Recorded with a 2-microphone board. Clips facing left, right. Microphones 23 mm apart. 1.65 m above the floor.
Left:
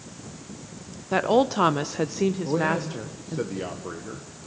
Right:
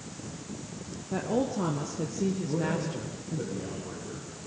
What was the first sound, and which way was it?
A woman speaking, 55° left (ahead or behind).